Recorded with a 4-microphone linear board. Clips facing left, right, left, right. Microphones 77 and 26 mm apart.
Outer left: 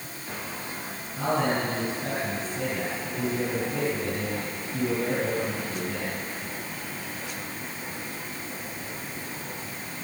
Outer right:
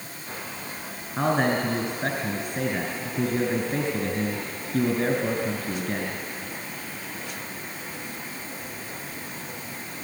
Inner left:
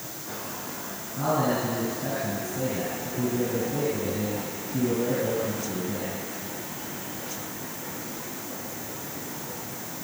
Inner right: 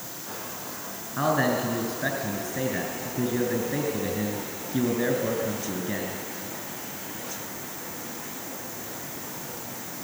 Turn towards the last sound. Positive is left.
turn(degrees=-60)  # may be behind; listen again after turning